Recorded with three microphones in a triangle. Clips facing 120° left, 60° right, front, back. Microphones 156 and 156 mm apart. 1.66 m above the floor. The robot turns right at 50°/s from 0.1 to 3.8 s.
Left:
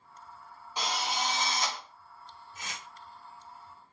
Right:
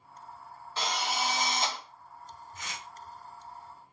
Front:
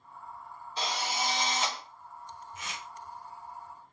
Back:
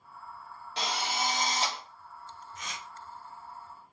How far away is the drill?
About 0.7 m.